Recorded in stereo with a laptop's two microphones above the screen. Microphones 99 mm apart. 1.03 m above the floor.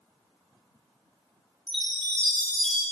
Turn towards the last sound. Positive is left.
turn(degrees=5)  # may be behind; listen again after turning